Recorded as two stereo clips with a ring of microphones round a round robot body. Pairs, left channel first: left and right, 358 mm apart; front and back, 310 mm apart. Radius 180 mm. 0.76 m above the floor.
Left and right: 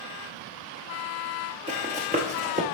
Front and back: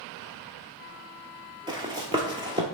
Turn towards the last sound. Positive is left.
turn(degrees=-125)